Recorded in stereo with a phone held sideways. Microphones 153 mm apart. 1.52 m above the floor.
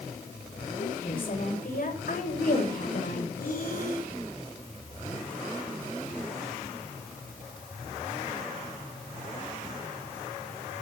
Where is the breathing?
75° left (ahead or behind), 9 m.